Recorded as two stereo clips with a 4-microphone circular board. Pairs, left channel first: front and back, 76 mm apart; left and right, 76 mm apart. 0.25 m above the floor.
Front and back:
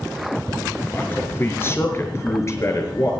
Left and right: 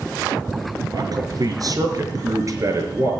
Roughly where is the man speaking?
Ahead right.